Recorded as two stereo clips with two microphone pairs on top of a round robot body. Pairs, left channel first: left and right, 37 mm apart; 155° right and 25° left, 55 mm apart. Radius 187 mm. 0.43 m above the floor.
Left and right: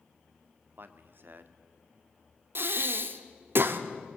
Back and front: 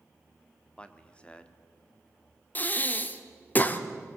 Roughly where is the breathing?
Right.